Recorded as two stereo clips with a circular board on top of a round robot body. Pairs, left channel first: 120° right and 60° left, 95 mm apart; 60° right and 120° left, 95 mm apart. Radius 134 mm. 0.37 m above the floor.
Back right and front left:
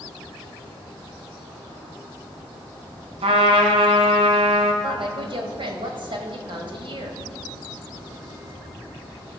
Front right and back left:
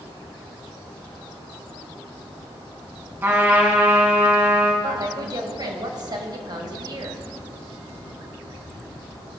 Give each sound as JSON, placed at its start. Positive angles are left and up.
{"t": 3.2, "sound": "a trumpet", "azimuth_deg": 50, "distance_m": 1.9}
{"t": 4.8, "sound": "a woman speaking", "azimuth_deg": 80, "distance_m": 2.0}